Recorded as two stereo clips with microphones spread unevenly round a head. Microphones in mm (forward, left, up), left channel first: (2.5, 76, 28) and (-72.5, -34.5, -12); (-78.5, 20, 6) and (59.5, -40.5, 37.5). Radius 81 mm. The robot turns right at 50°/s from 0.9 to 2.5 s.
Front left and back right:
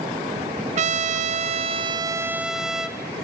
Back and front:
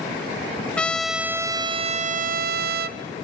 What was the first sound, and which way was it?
A trumpet, 125° right.